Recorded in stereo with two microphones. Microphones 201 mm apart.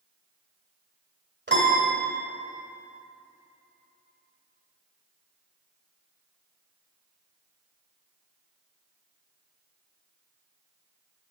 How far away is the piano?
About 1.8 m.